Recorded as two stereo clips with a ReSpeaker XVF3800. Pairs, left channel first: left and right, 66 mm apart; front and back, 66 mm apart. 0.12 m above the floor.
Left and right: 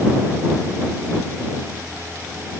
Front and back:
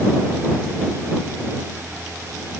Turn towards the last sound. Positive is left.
No sound to turn to.